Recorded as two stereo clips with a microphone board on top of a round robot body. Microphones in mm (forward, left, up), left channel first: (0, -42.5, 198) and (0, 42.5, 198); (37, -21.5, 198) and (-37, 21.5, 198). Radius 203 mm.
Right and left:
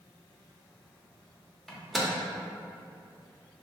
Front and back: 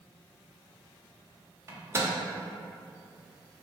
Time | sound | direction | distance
1.7 | a microwave | straight behind | 0.7 m